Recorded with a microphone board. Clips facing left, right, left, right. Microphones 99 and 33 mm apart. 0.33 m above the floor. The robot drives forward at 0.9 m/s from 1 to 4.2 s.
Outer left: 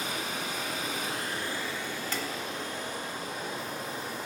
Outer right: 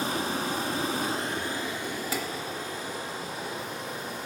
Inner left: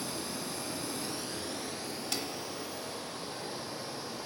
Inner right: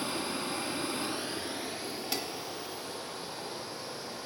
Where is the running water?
35° right (ahead or behind), 0.7 m; by 4.3 s 5° right (ahead or behind), 3.5 m.